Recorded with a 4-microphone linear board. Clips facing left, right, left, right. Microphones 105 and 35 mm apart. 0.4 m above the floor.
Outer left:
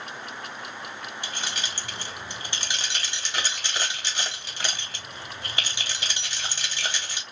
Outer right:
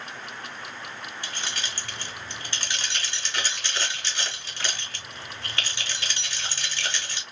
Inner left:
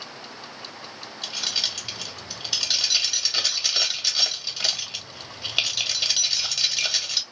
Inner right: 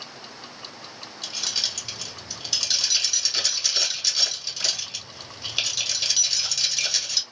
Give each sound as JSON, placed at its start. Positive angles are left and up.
{"t": 1.2, "sound": "keys jangling", "side_deg": 20, "distance_m": 1.0}